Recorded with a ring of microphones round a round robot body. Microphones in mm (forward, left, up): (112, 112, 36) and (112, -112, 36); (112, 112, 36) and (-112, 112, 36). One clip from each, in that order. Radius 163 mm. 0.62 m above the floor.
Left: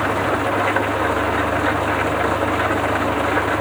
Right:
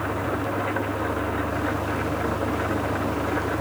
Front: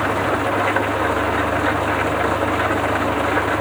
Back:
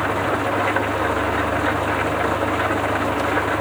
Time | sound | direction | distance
0.0 | an engine running | 90° left | ?